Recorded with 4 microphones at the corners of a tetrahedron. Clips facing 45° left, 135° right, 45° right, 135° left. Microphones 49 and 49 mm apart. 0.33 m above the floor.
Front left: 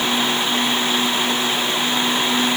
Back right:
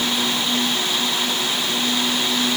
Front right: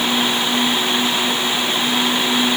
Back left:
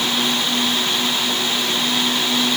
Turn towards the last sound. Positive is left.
No sound to turn to.